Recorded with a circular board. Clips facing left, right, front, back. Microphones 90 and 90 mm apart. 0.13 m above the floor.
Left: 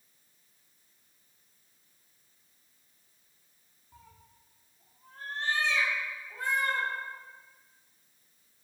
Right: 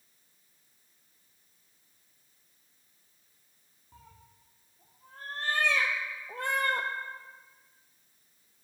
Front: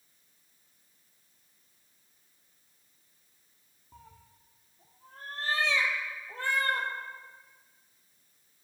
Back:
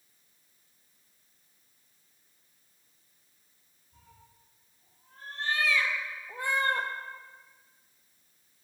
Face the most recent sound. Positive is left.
turn(degrees=-125)